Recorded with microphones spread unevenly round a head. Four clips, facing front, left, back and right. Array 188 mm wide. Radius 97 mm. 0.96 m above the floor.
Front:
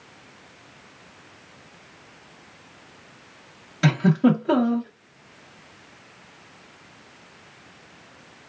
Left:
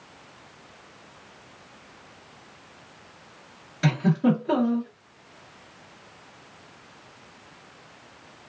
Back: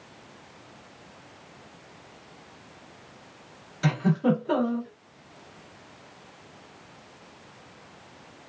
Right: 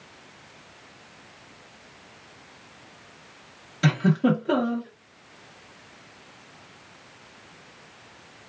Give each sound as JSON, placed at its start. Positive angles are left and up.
{"t": 3.8, "sound": "a giggle", "azimuth_deg": -10, "distance_m": 1.7}